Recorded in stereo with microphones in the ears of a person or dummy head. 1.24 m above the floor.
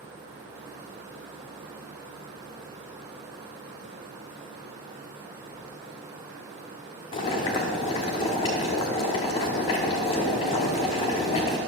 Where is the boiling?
30° left (ahead or behind), 1.1 m.